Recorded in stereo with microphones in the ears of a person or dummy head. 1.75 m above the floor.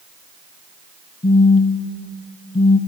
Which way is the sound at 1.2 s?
35° left (ahead or behind).